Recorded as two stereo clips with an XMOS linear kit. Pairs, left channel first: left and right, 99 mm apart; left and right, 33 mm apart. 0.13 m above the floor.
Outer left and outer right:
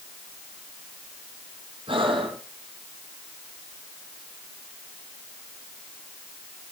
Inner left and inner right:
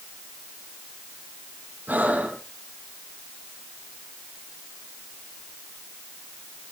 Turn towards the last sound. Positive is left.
turn(degrees=-70)  # may be behind; listen again after turning